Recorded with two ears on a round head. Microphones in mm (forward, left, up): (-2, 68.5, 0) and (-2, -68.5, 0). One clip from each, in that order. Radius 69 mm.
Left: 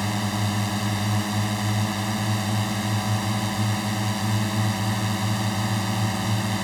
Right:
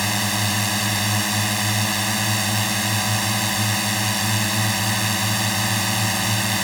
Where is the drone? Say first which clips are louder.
Right 6 dB; 55° right (ahead or behind).